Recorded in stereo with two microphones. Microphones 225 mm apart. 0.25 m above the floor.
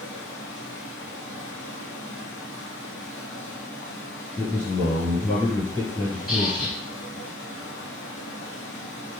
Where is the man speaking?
20° left (ahead or behind), 3.5 m.